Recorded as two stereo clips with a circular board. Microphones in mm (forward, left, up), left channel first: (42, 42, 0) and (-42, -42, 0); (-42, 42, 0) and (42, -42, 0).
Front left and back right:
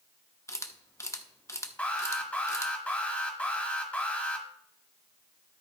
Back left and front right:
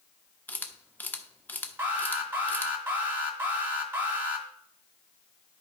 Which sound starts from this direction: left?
A camera shutter, at 0.5 s.